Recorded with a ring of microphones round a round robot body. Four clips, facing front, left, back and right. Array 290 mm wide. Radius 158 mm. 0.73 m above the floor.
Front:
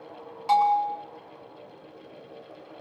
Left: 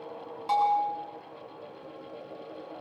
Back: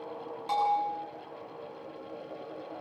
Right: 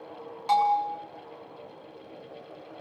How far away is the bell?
About 6.5 m.